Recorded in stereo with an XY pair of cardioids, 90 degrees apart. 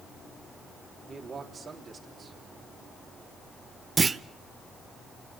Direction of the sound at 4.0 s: 35° right.